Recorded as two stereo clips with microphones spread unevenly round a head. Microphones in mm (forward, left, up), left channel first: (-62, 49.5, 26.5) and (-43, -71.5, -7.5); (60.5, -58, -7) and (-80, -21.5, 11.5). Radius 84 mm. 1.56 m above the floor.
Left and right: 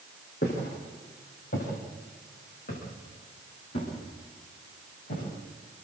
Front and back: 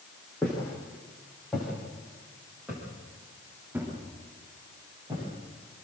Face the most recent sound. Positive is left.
turn(degrees=95)